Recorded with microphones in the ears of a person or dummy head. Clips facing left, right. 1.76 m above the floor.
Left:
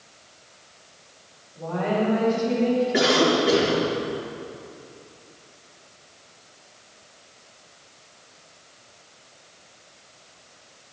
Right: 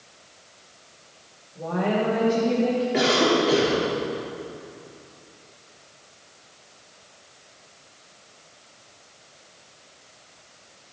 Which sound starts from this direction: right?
A woman speaking, at 1.6 s.